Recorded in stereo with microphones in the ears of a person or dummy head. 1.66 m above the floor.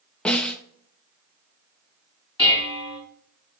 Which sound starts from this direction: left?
Dishes clattering, at 2.4 s.